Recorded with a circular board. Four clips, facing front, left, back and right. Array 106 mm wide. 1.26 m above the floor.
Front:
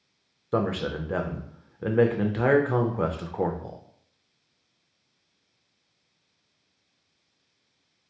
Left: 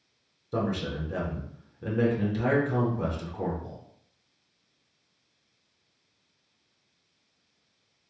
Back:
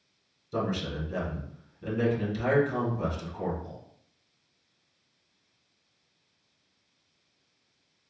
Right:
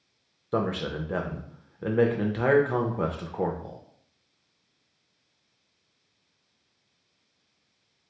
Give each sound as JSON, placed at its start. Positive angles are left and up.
{"t": 0.5, "sound": "a man speaking", "azimuth_deg": -30, "distance_m": 0.5}